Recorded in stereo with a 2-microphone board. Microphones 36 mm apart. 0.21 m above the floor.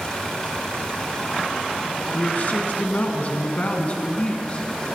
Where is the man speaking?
50° left (ahead or behind), 1.9 m; by 4.7 s 40° left (ahead or behind), 2.5 m.